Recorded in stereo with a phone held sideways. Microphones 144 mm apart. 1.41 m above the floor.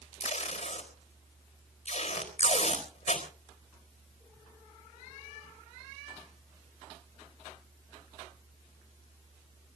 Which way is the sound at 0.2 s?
55° left (ahead or behind).